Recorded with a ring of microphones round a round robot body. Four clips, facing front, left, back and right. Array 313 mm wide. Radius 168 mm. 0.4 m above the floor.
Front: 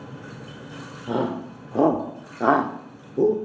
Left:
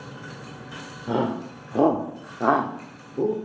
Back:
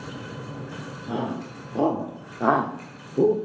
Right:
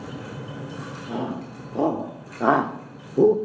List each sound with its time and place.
1.1 s a shout: 50° left, 1.9 m; by 3.4 s 100° right, 1.6 m